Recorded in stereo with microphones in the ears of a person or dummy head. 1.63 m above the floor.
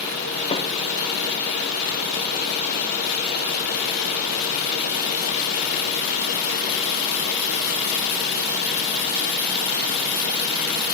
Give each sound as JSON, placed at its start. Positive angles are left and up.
{"t": 0.5, "sound": "a snare drum", "side_deg": 25, "distance_m": 0.9}